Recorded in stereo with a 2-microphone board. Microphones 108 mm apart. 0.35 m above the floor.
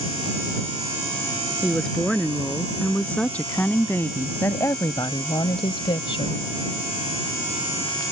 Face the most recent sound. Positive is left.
turn(degrees=55)  # may be behind; listen again after turning